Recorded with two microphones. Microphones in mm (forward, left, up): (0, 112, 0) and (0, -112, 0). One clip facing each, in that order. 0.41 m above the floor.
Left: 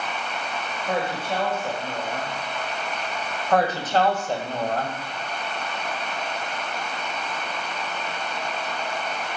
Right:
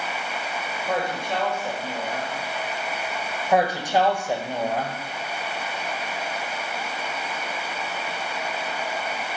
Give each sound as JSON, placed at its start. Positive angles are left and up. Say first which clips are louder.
{"t": 0.9, "sound": "a woman speaking", "louder": "even", "side_deg": 5, "distance_m": 1.7}
{"t": 3.5, "sound": "a woman speaking", "louder": "even", "side_deg": -15, "distance_m": 1.5}